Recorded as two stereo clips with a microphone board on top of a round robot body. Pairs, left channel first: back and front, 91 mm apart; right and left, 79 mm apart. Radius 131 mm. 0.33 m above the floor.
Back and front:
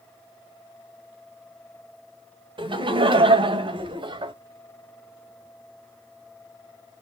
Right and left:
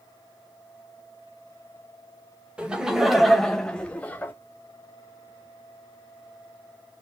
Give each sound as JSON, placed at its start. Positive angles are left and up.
{"t": 2.6, "sound": "laughter", "azimuth_deg": 15, "distance_m": 1.9}